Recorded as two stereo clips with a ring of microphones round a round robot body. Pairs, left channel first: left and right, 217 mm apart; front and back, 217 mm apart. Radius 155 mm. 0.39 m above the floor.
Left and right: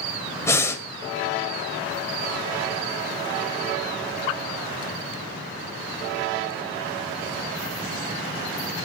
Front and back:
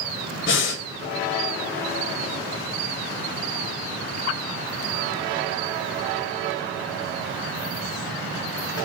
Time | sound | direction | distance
0.4 | breathing | 15° left | 1.9 m